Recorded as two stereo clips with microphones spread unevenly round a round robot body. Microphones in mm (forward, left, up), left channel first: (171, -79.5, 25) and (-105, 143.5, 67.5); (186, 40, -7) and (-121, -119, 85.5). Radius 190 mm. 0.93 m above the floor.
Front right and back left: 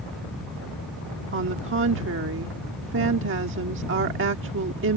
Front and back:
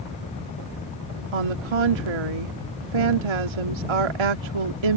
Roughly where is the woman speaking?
Behind.